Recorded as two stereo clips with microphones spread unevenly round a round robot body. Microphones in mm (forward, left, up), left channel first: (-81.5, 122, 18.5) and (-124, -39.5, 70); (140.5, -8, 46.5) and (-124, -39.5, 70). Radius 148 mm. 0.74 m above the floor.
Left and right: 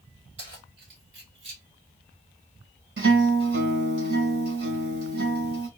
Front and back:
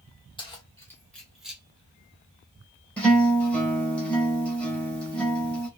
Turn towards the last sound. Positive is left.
turn(degrees=-80)